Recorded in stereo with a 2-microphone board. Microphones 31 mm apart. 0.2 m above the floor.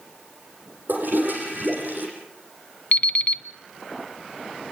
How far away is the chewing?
No chewing in this recording.